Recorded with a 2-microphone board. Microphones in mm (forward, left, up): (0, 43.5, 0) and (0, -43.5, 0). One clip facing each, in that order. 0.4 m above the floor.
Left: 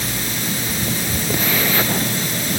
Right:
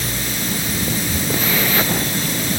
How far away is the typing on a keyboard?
I don't hear typing on a keyboard.